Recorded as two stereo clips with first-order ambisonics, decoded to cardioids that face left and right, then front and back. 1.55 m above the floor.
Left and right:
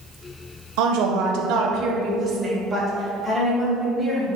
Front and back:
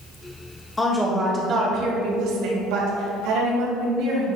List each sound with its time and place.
0.8 s a woman speaking: 80° right, 1.3 m; by 4.3 s 175° left, 3.5 m